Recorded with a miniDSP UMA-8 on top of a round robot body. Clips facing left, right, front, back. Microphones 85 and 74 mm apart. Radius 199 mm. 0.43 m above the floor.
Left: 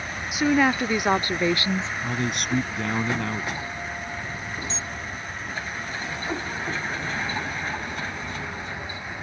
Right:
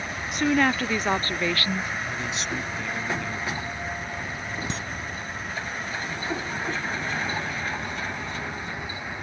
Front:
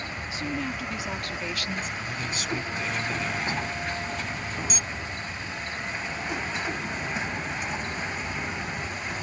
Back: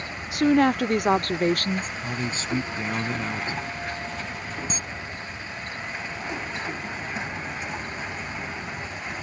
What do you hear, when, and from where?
0.3 s a woman speaking: 175° left; by 1.9 s 145° left
2.0 s a man speaking: 125° left
4.7 s a camera shutter: 125° right